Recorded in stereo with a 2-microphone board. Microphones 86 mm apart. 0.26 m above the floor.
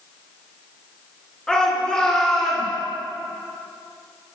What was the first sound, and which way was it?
A shout, 10° left (ahead or behind).